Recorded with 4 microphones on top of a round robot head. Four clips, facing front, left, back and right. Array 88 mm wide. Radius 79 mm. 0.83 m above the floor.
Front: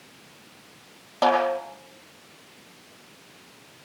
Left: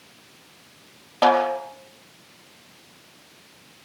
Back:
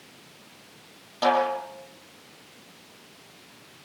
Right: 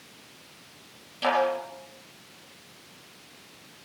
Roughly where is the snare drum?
Ahead left.